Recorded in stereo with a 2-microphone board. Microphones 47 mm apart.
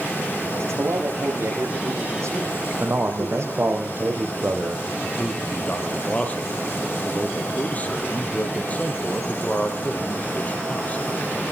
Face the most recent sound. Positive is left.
turn(degrees=30)  # may be behind; listen again after turning